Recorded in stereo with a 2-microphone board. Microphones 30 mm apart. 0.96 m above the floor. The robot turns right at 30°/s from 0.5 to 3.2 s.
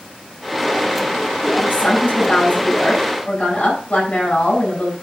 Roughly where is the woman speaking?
Left.